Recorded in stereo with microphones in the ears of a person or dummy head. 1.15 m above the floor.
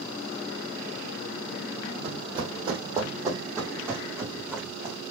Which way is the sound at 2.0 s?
35° right (ahead or behind).